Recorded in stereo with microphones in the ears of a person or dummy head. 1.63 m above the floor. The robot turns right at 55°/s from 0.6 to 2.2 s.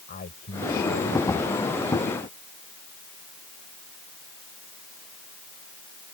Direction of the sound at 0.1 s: 45° left.